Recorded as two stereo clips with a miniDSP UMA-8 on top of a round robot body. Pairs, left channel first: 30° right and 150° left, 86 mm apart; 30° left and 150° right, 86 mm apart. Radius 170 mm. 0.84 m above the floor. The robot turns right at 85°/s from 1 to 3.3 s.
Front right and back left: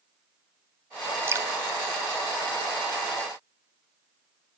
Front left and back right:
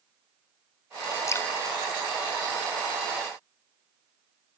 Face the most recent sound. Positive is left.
turn(degrees=-105)